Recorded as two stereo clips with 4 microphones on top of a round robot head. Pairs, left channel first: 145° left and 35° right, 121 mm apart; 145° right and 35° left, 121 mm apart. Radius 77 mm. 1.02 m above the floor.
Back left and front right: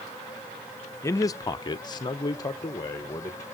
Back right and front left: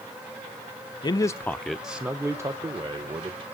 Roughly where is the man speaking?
Behind.